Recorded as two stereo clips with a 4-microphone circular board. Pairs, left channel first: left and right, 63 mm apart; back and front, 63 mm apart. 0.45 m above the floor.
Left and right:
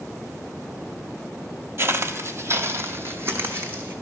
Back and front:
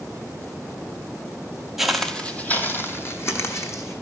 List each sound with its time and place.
1.8 s footsteps: 80° right, 0.5 m; by 3.9 s 145° right, 1.3 m